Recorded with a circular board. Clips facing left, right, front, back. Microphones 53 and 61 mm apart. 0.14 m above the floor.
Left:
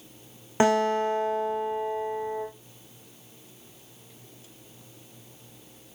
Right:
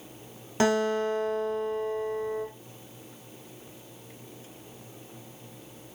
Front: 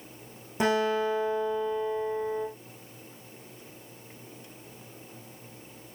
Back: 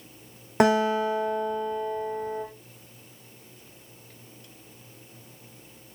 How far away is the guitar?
About 5.5 m.